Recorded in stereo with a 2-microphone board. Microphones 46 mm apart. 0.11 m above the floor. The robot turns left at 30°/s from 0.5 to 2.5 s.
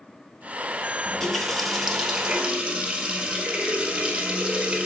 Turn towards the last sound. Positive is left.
turn(degrees=-30)